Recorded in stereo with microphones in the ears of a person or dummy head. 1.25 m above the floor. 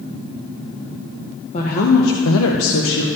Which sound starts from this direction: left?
A woman speaking, at 1.5 s.